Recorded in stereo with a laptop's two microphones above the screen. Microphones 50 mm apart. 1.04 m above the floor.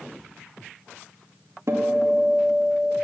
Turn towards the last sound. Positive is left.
turn(degrees=-60)  # may be behind; listen again after turning